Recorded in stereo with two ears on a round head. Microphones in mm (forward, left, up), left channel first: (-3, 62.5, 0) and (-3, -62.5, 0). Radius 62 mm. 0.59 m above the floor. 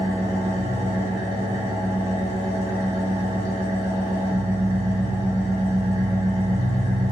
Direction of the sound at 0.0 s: 25° right (ahead or behind).